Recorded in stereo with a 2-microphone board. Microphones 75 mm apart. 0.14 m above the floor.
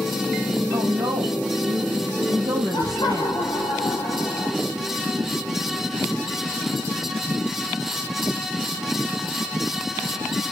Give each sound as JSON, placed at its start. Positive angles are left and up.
{"t": 0.7, "sound": "a woman speaking", "side_deg": -65, "distance_m": 4.0}
{"t": 2.7, "sound": "laughter", "side_deg": 60, "distance_m": 3.0}